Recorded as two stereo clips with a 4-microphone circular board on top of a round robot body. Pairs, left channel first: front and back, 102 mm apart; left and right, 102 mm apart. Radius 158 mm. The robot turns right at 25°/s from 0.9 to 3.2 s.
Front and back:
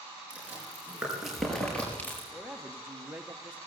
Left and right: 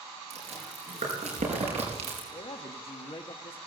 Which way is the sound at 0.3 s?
100° right.